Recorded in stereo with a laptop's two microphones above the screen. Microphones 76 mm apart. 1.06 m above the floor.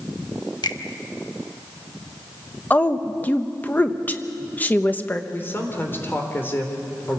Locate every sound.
0.6 s a finger snap: 70° left (ahead or behind), 1.1 m
2.7 s a woman speaking: 25° left (ahead or behind), 0.9 m
5.3 s a man speaking: 30° left (ahead or behind), 3.5 m